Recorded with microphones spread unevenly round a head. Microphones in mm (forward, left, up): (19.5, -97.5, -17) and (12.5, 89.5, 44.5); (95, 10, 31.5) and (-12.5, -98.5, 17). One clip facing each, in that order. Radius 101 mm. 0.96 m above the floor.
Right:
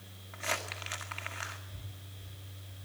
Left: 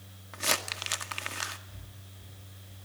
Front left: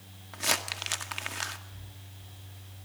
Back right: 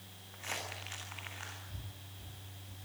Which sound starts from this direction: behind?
Breathing, at 1.7 s.